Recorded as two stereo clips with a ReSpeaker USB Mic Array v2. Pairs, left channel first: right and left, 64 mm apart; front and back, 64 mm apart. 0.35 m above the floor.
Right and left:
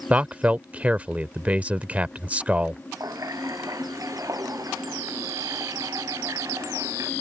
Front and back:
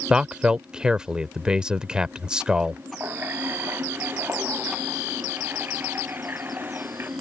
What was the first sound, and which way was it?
A man speaking, 120° left.